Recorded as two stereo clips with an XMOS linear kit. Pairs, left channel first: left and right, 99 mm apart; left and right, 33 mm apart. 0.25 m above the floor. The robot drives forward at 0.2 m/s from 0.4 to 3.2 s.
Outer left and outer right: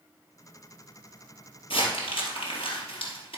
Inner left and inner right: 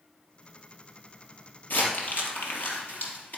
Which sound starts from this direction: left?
Crumpling, at 1.7 s.